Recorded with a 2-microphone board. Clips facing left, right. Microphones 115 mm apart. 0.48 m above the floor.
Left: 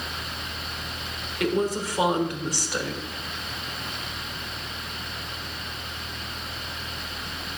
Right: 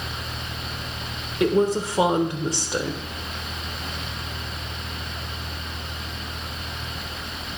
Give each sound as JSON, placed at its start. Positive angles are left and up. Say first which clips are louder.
{"t": 1.4, "sound": "a woman speaking", "louder": "right 5 dB", "side_deg": -25, "distance_m": 1.1}